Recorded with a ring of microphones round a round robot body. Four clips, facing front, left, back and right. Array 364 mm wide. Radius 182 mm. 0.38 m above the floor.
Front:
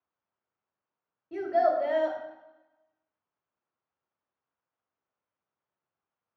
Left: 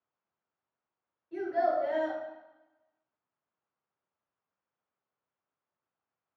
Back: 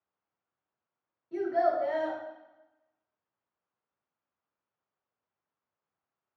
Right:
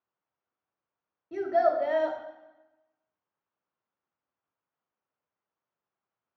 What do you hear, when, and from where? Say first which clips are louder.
1.3 s a child speaking: right 4 dB, front 2 dB; 55° right, 0.9 m